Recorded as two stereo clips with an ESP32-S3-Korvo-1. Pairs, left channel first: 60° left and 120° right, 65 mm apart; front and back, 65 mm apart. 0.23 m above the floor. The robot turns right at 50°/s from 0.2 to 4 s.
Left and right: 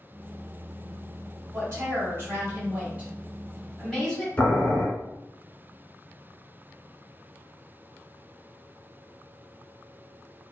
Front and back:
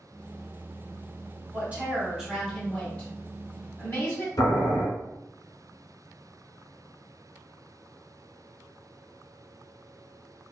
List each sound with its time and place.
1.5 s a woman speaking: 140° right, 1.9 m; by 4.3 s 15° right, 1.9 m
4.4 s boiling: 10° right, 1.1 m